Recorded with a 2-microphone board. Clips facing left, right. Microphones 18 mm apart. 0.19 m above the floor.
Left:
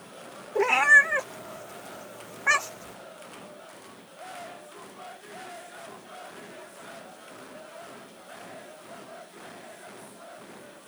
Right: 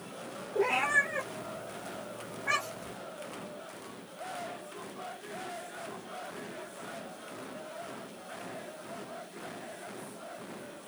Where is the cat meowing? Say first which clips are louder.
Left 9 dB; 65° left (ahead or behind), 0.9 m.